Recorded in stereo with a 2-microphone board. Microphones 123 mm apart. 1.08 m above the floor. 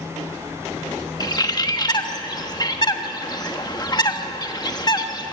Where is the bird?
30° left (ahead or behind), 1.2 m.